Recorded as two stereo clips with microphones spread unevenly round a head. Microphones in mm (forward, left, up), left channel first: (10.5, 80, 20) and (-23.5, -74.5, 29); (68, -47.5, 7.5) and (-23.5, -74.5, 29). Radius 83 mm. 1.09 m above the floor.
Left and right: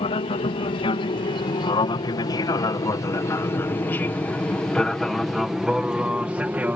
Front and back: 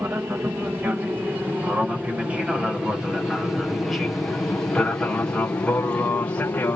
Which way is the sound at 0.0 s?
120° left.